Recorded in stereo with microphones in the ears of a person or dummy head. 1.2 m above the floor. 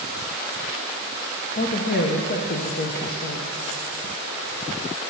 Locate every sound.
1.6 s a woman speaking: 50° left (ahead or behind), 0.8 m